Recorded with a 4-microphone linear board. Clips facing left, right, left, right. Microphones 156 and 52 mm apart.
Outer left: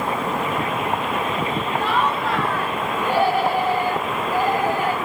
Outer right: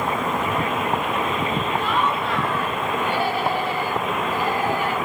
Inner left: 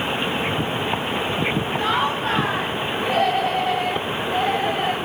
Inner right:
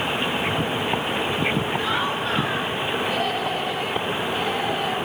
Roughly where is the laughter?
Left.